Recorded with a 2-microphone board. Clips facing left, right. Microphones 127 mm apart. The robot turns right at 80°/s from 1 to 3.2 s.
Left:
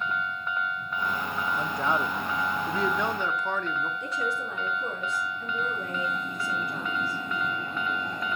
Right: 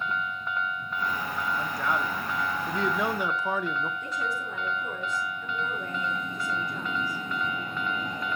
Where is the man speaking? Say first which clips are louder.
Left 3 dB; 20° left (ahead or behind), 0.7 m; by 3.9 s 10° right (ahead or behind), 0.7 m.